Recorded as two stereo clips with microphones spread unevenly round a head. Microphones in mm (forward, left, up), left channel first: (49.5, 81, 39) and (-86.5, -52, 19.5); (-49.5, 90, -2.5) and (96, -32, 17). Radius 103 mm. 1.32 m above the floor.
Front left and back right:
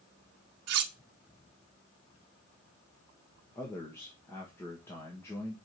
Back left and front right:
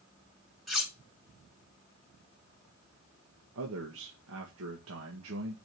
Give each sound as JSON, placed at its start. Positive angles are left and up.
{"t": 0.7, "sound": "cutlery clinking", "azimuth_deg": -130, "distance_m": 1.4}
{"t": 3.5, "sound": "a man speaking", "azimuth_deg": -35, "distance_m": 1.6}